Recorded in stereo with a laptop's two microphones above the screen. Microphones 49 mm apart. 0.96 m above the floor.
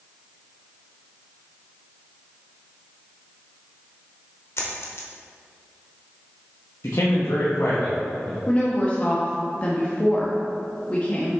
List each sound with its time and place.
4.6 s a dropped coin: 65° left (ahead or behind), 1.1 m
6.8 s a man speaking: 75° left (ahead or behind), 0.9 m
8.5 s a woman speaking: 30° left (ahead or behind), 1.1 m